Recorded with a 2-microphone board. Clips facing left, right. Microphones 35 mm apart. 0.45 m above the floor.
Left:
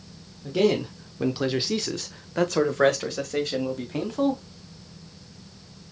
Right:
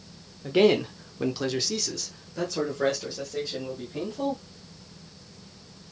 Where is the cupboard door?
I don't hear a cupboard door.